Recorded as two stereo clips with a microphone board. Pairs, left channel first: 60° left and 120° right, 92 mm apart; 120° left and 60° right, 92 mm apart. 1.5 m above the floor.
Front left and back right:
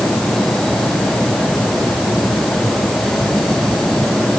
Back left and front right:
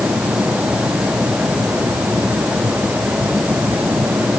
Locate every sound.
Only background noise.